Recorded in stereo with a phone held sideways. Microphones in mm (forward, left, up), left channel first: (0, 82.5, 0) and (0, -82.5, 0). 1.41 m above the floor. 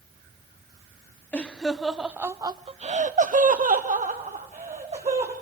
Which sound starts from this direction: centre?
Laughter, at 1.3 s.